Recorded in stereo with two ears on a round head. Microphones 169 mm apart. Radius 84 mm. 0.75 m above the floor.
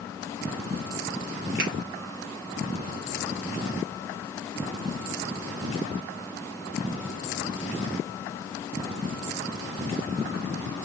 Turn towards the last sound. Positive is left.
turn(degrees=-50)  # may be behind; listen again after turning